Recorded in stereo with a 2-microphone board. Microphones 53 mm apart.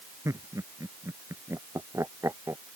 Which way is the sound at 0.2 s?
80° right.